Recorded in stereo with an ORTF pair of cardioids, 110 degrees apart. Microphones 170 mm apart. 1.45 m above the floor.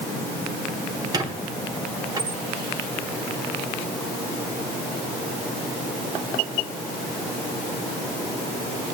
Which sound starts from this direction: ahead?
A squeak, at 1.1 s.